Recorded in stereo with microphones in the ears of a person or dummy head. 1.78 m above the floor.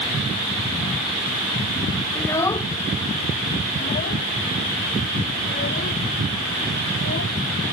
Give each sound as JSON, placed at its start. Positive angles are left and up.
{"t": 2.1, "sound": "a child speaking", "side_deg": 10}